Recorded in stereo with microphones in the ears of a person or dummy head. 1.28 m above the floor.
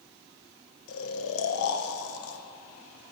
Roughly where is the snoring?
Left.